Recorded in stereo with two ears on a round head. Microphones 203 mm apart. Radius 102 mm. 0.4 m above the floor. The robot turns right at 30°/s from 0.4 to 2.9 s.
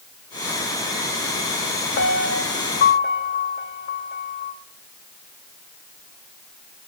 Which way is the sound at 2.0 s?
50° left (ahead or behind).